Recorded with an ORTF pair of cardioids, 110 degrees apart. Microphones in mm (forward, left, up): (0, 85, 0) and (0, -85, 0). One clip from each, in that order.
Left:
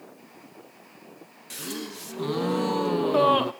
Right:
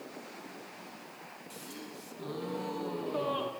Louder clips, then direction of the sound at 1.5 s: Left 13 dB; 65° left.